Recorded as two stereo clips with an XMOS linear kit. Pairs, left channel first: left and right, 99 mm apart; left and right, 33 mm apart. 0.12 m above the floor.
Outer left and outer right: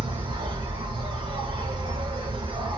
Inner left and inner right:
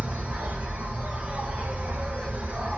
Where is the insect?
60° right (ahead or behind), 2.0 m.